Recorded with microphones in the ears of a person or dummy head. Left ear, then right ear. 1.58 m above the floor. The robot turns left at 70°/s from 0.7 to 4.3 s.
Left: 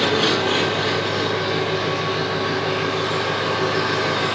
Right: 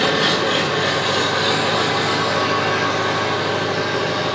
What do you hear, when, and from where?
0.0 s an engine running: 5° left, 1.5 m; by 4.3 s 110° left, 1.5 m